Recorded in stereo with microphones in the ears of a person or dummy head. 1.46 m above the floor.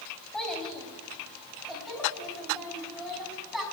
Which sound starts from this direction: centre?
A child speaking, at 0.3 s.